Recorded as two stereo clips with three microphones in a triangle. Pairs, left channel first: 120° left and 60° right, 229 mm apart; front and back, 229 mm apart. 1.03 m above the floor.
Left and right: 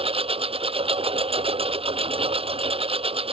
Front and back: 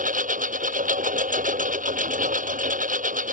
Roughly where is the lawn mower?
Behind right.